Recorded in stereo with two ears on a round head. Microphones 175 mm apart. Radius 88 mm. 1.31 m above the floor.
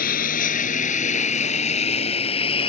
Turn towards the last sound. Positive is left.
turn(degrees=25)  # may be behind; listen again after turning